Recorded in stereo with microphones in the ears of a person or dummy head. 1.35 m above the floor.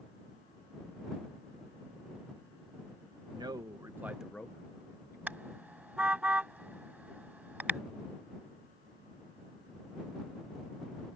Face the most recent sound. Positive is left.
turn(degrees=-10)  # may be behind; listen again after turning